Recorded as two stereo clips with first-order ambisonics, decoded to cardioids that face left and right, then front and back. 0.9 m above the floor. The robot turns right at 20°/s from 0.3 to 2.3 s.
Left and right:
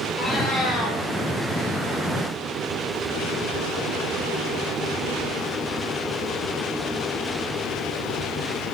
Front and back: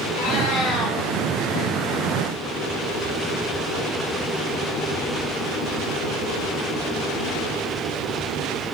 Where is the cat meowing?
10° left, 4.5 m; by 1.0 s 25° left, 4.5 m.